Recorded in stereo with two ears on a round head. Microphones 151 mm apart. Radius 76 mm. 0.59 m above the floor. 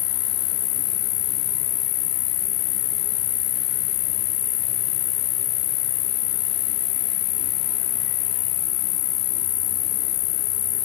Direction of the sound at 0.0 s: 45° left (ahead or behind).